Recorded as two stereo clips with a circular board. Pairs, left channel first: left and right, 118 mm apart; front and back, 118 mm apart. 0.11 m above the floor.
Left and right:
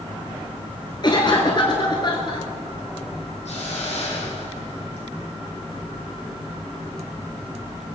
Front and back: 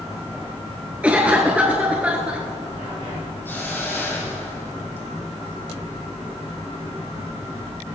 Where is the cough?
105° left, 1.4 m.